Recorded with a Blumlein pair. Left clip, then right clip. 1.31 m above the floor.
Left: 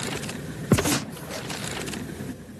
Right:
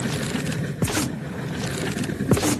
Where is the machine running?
65° right.